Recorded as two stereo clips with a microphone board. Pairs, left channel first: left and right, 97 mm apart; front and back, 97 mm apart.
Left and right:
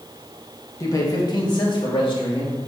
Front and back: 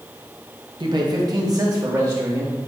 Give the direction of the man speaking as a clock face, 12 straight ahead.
7 o'clock.